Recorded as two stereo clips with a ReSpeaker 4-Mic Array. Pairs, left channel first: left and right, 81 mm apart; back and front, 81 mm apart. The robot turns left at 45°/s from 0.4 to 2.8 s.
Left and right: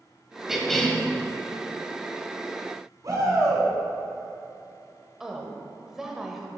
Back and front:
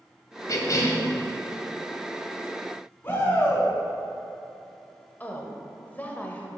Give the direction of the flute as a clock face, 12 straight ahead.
No flute in this recording.